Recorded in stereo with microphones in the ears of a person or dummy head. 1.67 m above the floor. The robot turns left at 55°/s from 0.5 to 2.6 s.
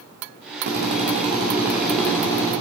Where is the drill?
115° right, 2 m; by 2.5 s 145° left, 2 m.